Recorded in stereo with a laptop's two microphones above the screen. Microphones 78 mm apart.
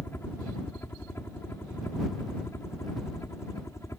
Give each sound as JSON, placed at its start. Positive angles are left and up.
{"t": 0.0, "sound": "a helicopter", "side_deg": 30}